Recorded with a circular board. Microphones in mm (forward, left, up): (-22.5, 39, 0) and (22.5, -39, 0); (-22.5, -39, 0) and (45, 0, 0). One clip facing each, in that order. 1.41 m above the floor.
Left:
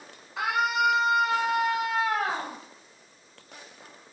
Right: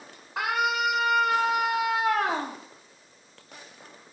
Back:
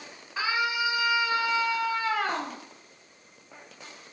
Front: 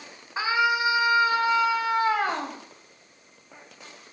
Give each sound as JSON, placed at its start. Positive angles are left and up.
{"t": 0.4, "sound": "a scream", "azimuth_deg": -35, "distance_m": 4.0}